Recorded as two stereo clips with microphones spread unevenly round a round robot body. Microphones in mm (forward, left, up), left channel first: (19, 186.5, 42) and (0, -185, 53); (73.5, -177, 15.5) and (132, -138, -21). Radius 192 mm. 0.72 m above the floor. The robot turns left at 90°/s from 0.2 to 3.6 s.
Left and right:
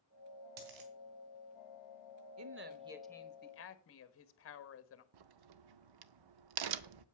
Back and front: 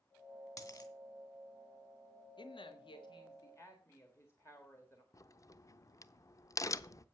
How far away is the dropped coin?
About 3 m.